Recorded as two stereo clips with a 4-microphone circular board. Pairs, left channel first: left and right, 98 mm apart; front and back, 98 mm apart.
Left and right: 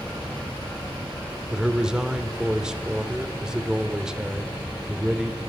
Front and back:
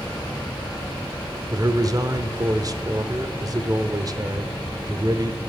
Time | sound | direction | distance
1.5 | a man speaking | 170° right | 0.9 m